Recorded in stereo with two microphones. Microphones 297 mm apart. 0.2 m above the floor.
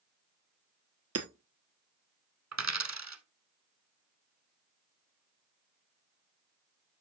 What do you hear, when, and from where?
1.1 s hammering: 55° right (ahead or behind), 1.3 m
2.5 s a dropped coin: 65° right (ahead or behind), 1.0 m